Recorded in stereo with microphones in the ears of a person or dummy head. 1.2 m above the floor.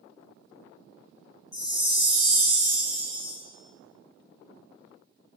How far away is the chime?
About 0.7 m.